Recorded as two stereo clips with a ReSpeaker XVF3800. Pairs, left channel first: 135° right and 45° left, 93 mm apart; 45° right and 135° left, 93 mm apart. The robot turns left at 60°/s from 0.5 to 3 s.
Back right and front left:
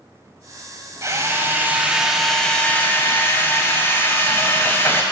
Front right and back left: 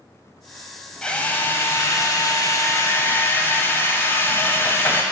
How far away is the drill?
About 1.4 m.